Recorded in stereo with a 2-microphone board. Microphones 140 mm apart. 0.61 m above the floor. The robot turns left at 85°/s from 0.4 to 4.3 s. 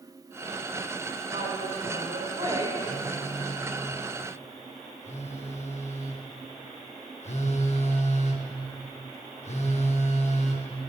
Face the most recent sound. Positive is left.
turn(degrees=65)